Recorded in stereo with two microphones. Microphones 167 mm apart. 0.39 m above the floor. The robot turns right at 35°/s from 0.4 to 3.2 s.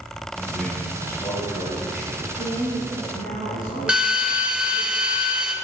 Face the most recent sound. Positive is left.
turn(degrees=-5)  # may be behind; listen again after turning